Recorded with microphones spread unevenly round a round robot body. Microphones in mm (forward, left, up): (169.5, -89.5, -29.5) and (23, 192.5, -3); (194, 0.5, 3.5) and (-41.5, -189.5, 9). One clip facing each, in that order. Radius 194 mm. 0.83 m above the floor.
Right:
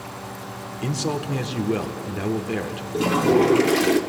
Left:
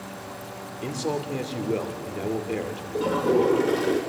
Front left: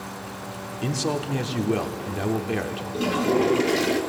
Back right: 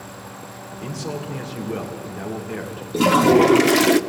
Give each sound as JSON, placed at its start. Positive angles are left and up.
{"t": 0.8, "sound": "a man speaking", "azimuth_deg": 0, "distance_m": 2.0}
{"t": 2.9, "sound": "a toilet flushing", "azimuth_deg": -120, "distance_m": 0.7}